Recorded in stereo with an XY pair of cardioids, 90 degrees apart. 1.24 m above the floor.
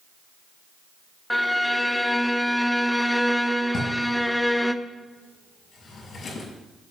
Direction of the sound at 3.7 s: 60° left.